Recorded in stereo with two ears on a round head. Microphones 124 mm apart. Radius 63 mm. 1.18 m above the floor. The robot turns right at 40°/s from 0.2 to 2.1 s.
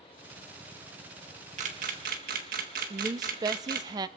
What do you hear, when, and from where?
1.6 s a camera shutter: 60° right (ahead or behind), 1.8 m; by 3.9 s 75° right (ahead or behind), 1.8 m
2.9 s a woman speaking: 30° right (ahead or behind), 0.7 m